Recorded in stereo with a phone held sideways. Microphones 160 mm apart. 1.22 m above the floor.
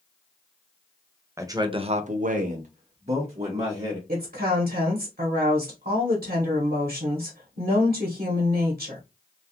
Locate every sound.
1.4 s a man speaking: 15° right (ahead or behind), 0.7 m; by 4.0 s 35° right (ahead or behind), 1.4 m
4.1 s a woman speaking: 65° right (ahead or behind), 1.0 m